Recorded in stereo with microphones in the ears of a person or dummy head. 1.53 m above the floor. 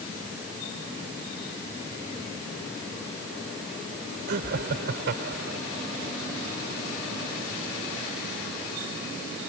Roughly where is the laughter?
Right.